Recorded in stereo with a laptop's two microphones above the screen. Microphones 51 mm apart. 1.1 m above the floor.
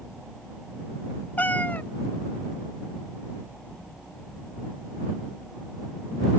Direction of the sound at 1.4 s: 35° left (ahead or behind).